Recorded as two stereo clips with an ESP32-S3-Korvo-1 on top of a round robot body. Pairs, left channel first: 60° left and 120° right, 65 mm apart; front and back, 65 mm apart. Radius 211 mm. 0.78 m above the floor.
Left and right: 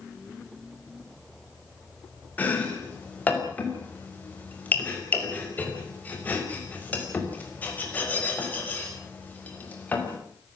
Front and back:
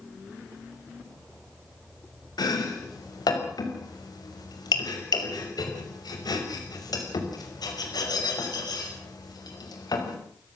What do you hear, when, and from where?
2.4 s chopping: 5° right, 5.5 m